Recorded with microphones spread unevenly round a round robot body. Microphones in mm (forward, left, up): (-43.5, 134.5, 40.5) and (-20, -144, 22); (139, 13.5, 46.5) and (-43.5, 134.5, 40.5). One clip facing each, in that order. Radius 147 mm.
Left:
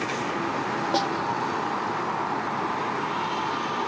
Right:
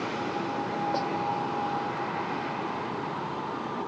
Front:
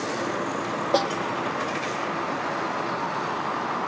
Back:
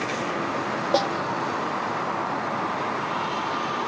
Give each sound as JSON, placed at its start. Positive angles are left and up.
{"t": 0.9, "sound": "a snare drum", "azimuth_deg": 55}